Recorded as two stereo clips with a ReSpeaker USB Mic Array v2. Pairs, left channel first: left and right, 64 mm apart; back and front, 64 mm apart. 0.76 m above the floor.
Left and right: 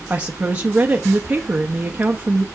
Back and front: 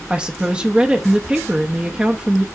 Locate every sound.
0.1 s a woman speaking: 50° right, 0.8 m